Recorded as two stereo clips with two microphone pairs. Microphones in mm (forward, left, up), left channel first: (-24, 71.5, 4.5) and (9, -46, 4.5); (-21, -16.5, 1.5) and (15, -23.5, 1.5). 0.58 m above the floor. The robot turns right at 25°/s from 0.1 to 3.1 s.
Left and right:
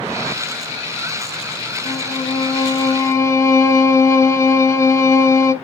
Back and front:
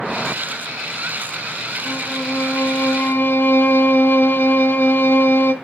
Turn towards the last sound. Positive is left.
turn(degrees=170)